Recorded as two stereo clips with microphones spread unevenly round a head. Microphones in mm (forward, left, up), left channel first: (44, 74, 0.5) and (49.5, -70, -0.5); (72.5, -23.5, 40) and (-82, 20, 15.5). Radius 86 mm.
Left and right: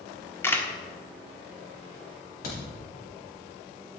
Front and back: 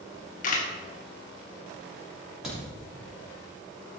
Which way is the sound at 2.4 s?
80° left.